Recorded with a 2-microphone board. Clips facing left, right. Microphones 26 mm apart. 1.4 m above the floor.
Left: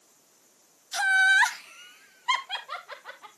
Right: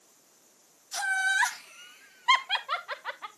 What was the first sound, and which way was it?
Laughter, 40° left (ahead or behind).